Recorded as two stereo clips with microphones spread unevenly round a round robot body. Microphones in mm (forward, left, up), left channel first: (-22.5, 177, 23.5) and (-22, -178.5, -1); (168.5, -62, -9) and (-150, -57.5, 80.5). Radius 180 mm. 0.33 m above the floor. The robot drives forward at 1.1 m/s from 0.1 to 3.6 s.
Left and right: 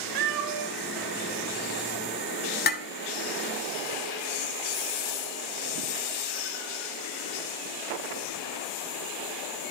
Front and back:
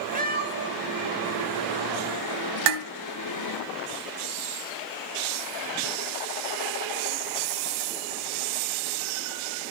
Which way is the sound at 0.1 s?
115° right.